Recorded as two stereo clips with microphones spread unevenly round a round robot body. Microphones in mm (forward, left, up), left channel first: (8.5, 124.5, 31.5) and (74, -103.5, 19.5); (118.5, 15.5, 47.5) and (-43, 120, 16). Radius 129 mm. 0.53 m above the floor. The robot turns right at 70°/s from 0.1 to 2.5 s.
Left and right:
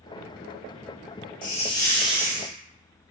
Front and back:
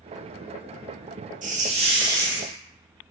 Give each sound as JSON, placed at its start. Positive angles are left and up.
{"t": 1.4, "sound": "a hiss", "azimuth_deg": 155, "distance_m": 0.9}